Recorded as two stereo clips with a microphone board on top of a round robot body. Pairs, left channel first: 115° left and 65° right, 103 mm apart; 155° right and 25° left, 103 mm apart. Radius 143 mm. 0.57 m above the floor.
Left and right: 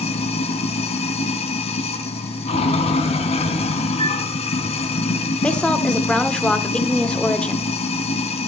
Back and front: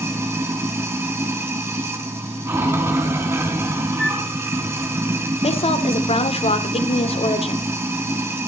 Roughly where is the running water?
Left.